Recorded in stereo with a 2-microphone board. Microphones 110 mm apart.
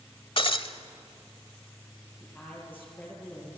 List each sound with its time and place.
0.4 s breaking glass: 55° left (ahead or behind), 0.9 m
2.2 s a woman speaking: 15° left (ahead or behind), 7.5 m